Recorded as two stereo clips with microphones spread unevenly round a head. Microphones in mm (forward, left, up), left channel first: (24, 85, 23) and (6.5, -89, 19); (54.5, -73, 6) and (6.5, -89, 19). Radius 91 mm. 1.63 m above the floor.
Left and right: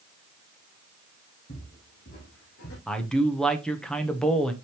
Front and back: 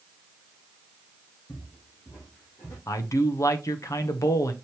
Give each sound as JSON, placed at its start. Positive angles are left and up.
{"t": 1.5, "sound": "footsteps", "azimuth_deg": 45, "distance_m": 3.5}
{"t": 2.9, "sound": "a man speaking", "azimuth_deg": 0, "distance_m": 1.1}